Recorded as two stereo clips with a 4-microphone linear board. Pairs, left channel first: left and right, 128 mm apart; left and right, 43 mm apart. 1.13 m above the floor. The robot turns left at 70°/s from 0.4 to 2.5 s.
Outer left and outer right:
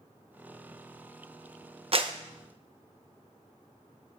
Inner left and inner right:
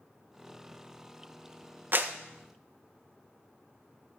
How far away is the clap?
About 0.6 m.